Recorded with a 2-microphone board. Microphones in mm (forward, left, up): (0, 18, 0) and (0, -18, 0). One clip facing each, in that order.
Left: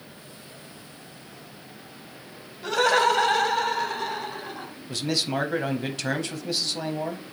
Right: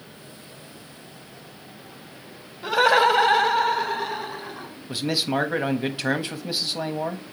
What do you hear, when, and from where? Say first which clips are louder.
2.6 s laughter: right 3 dB; 15° right (ahead or behind), 1.0 m; by 4.7 s 5° right (ahead or behind), 1.7 m
4.9 s a man speaking: right 2 dB; 15° right (ahead or behind), 1.1 m